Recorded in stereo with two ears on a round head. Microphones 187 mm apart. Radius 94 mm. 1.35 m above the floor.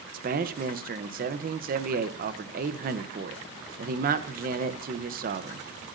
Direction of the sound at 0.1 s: 45° right (ahead or behind).